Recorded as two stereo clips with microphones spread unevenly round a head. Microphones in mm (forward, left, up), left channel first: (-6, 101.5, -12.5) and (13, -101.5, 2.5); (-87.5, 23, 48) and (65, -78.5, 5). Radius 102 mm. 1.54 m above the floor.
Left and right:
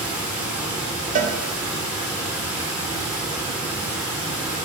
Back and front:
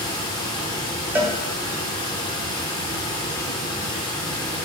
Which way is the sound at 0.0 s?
165° right.